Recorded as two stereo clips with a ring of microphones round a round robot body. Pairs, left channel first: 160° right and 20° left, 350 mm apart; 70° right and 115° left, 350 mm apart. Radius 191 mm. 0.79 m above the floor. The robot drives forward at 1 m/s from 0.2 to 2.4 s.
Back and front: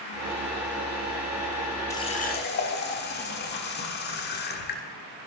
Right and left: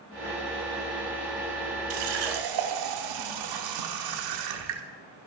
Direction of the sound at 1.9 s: 120° left.